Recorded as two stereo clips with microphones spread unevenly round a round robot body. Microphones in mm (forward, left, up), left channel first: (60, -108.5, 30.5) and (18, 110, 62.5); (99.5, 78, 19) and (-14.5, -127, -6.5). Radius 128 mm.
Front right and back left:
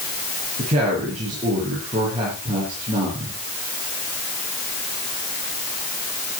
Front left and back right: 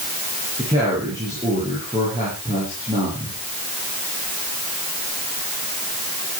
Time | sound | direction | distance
0.6 | a woman speaking | 165° left | 6.5 m